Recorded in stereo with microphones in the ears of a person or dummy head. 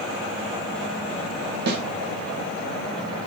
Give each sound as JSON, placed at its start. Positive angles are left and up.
{"t": 1.7, "sound": "a snare drum", "side_deg": -65, "distance_m": 1.2}